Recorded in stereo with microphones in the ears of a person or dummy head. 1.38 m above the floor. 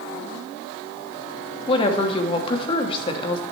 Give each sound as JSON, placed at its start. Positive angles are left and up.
{"t": 1.7, "sound": "a woman speaking", "side_deg": 30, "distance_m": 0.9}